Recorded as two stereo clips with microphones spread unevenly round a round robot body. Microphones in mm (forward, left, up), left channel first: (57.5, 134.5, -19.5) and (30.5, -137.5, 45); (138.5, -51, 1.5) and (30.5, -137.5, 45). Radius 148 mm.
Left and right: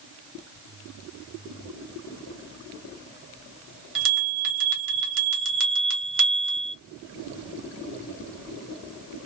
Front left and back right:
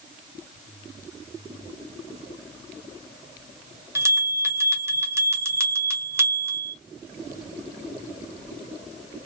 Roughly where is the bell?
Ahead right.